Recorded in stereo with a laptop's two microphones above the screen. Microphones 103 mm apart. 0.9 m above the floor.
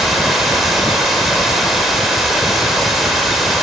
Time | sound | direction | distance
0.0 | running water | 5° right (ahead or behind) | 2 m